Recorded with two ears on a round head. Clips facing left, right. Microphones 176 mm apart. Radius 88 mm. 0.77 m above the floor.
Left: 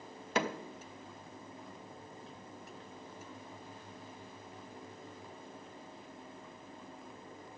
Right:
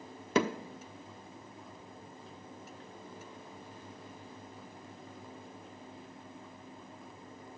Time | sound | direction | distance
0.3 | hammering | 80° right | 1.1 m